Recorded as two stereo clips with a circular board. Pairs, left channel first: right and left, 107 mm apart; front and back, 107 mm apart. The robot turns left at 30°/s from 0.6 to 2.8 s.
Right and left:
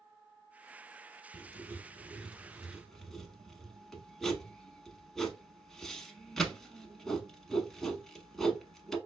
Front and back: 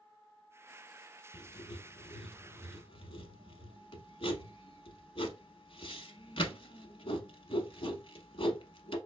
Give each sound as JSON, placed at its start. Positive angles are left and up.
{"t": 1.3, "sound": "writing", "azimuth_deg": 40, "distance_m": 0.7}